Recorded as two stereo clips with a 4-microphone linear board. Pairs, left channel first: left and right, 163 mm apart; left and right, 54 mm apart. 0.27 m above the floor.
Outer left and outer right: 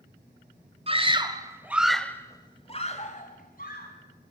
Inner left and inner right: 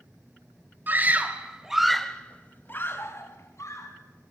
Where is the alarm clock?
I don't hear an alarm clock.